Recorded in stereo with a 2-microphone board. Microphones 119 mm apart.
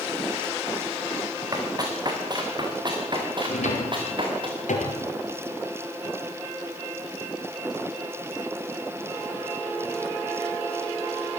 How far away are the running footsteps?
About 4.5 m.